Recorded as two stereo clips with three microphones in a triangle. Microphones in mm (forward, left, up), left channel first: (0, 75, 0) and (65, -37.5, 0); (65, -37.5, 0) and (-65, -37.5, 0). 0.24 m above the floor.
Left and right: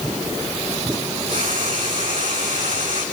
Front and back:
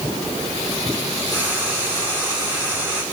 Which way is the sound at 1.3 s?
60° right.